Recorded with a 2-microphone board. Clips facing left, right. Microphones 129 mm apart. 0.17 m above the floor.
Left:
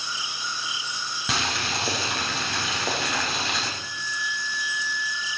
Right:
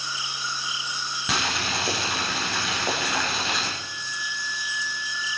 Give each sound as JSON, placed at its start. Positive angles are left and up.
{"t": 1.3, "sound": "boiling", "side_deg": 0, "distance_m": 3.5}
{"t": 3.8, "sound": "a flute", "side_deg": -5, "distance_m": 1.4}